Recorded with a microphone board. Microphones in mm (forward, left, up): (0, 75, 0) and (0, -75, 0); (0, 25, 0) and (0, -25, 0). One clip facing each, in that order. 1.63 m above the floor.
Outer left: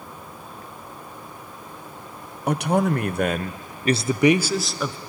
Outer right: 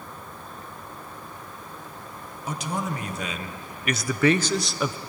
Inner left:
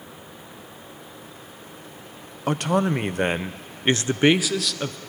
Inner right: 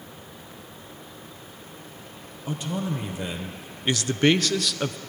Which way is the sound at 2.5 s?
75° left (ahead or behind).